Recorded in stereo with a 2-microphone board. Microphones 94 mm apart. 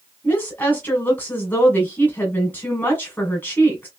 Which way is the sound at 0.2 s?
20° left (ahead or behind).